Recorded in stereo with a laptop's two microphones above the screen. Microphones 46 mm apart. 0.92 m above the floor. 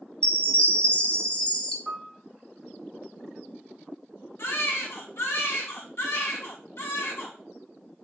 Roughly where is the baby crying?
Left.